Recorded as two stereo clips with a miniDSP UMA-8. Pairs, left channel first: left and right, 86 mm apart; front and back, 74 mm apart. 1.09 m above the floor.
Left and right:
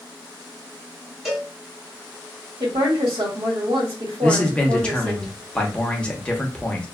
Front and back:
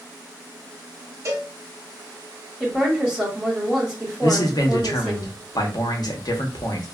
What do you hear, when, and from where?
1.2 s a cowbell: 175° right, 1.1 m
2.6 s a woman speaking: 95° right, 1.5 m
4.2 s a man speaking: 15° left, 0.7 m